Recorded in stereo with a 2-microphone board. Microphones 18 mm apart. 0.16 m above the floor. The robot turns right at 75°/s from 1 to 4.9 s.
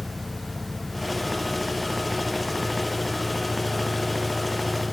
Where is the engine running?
65° right, 3.5 m; by 4.9 s 135° right, 3.5 m.